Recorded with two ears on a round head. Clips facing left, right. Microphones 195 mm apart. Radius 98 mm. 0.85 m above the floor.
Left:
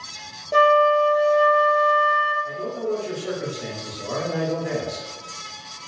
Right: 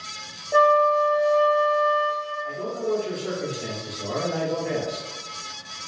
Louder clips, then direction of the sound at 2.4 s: Right 1 dB; 10° left (ahead or behind).